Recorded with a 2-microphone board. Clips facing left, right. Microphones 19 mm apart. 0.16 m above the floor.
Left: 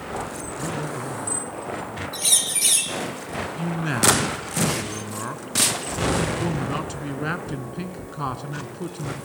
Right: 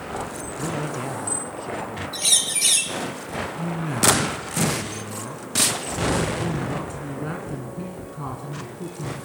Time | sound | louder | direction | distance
0.6 | a man speaking | right 2 dB | 65° right (ahead or behind) | 4 m
2.1 | a bird | right 2 dB | 10° right (ahead or behind) | 1.8 m
3.6 | a man speaking | left 1 dB | 45° left (ahead or behind) | 1.9 m